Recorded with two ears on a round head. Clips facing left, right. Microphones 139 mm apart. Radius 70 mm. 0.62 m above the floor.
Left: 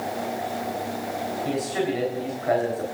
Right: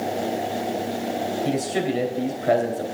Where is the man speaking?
35° right (ahead or behind), 3 m.